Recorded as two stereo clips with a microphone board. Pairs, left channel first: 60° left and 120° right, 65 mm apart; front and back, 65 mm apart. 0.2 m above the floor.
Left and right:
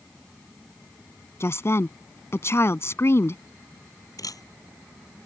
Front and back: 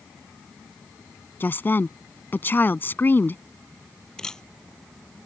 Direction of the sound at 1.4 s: 40° left.